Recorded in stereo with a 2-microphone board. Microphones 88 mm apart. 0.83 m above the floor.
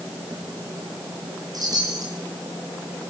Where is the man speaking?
No man speaking in this recording.